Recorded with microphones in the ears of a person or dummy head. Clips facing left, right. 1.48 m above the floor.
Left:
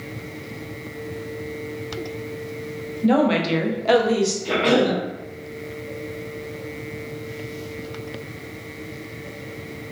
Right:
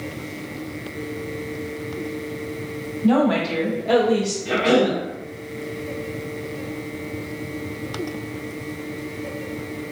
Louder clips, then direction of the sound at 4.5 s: Right 2 dB; 40° left (ahead or behind).